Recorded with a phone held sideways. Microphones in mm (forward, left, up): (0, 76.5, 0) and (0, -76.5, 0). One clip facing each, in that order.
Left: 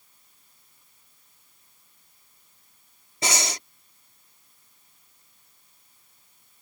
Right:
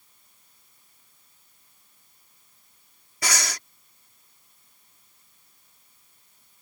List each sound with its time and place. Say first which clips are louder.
3.2 s breathing: left 2 dB; 25° left (ahead or behind)